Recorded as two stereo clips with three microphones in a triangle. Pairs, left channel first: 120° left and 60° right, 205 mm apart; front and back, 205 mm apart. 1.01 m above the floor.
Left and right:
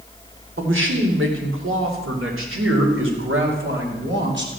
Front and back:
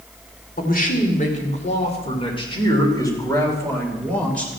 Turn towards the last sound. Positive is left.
turn(degrees=-85)